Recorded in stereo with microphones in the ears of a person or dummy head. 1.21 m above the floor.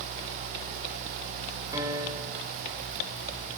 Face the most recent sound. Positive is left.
turn(degrees=-20)  # may be behind; listen again after turning